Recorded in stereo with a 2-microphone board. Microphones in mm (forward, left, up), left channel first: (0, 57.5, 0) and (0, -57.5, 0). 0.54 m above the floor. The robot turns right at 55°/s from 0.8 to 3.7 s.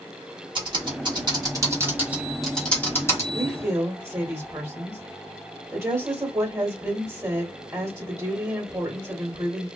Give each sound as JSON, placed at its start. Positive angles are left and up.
{"t": 0.6, "sound": "typing on a keyboard", "side_deg": -40, "distance_m": 1.0}
{"t": 3.3, "sound": "a woman speaking", "side_deg": -10, "distance_m": 1.1}